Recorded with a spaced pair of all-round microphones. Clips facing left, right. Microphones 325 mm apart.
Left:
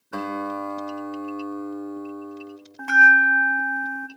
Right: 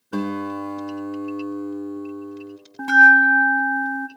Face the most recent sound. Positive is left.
turn(degrees=-45)  # may be behind; listen again after turning